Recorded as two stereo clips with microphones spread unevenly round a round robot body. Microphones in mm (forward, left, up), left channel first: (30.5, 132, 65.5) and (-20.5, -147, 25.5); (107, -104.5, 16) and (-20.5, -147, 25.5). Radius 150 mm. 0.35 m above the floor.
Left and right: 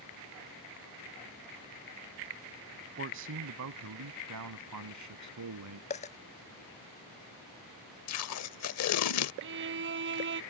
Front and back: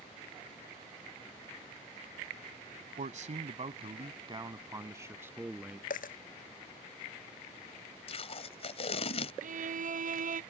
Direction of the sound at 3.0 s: 145° right.